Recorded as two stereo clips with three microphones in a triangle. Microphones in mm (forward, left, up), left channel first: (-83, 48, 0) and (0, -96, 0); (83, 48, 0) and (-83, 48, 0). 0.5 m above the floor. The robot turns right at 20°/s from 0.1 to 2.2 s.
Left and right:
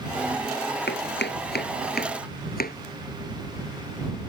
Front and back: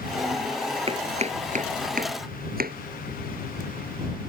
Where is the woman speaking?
I don't hear a woman speaking.